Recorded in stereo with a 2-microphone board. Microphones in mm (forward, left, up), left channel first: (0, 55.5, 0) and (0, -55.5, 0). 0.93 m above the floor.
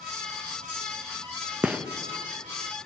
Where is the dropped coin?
No dropped coin in this recording.